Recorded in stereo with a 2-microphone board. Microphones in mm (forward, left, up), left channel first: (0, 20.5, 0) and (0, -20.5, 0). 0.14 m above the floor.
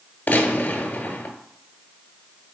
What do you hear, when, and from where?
0.3 s a gunshot: 40° left (ahead or behind), 1.0 m